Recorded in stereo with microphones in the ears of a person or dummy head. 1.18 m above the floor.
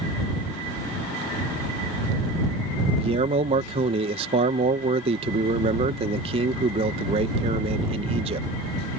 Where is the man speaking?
35° right (ahead or behind).